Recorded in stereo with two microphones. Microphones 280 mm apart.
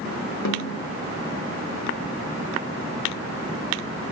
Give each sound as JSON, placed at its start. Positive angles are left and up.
{"t": 0.5, "sound": "a snare drum", "side_deg": 75, "distance_m": 2.0}